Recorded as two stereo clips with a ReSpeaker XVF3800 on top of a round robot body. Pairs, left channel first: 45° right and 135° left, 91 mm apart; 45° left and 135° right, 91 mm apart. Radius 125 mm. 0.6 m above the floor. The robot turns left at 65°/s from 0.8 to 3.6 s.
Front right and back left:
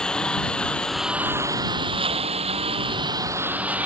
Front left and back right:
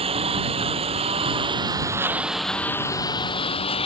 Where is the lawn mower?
125° right; by 3.9 s 60° left.